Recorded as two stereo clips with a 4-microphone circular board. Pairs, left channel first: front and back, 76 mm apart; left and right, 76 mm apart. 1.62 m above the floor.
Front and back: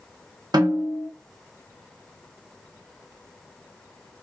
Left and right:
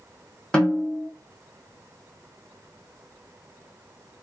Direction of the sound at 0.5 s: 165° left.